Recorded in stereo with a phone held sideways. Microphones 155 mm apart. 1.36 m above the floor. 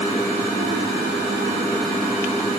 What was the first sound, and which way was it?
Only background noise.